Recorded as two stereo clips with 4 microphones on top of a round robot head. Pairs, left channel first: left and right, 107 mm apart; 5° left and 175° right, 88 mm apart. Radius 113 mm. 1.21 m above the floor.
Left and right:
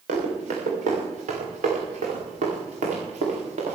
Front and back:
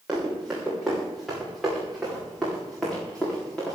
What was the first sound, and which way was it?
Running footsteps, 90° right.